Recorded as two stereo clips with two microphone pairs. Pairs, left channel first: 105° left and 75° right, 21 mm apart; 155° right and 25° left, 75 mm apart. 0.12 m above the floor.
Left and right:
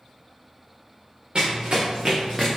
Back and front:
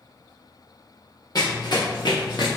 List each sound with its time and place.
1.4 s running footsteps: 115° right, 0.8 m; by 2.6 s 160° right, 0.9 m